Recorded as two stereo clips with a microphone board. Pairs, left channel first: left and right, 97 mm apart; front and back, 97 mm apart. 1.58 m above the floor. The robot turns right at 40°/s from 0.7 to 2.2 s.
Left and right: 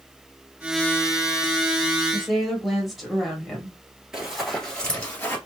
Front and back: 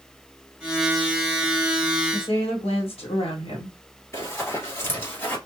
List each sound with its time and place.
2.1 s a woman speaking: 5° right, 1.4 m; by 3.7 s straight ahead, 1.4 m
4.1 s running footsteps: 10° right, 1.8 m; by 5.4 s 45° left, 1.8 m